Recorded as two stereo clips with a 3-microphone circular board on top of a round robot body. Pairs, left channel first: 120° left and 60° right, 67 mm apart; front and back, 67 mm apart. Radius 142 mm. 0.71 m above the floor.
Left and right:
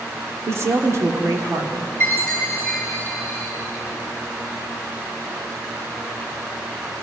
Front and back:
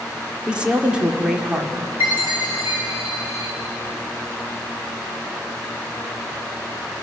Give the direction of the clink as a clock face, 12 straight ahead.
No clink in this recording.